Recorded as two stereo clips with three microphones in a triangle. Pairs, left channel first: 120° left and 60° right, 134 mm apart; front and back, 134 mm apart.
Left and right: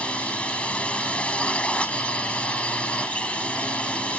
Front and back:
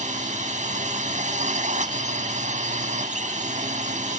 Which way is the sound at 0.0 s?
160° right.